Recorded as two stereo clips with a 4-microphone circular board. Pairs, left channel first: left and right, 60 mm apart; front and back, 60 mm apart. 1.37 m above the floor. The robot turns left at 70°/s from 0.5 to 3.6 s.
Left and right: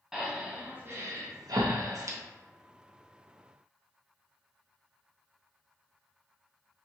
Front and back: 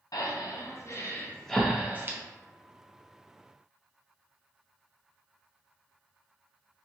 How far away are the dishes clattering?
No dishes clattering in this recording.